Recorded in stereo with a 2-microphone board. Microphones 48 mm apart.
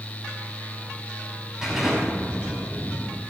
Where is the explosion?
10° right (ahead or behind), 5.5 m.